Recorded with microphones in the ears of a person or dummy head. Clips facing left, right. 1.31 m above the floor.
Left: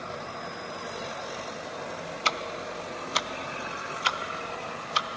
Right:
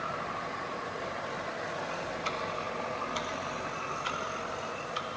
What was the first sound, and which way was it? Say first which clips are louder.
Ticking: left 2 dB; 70° left (ahead or behind).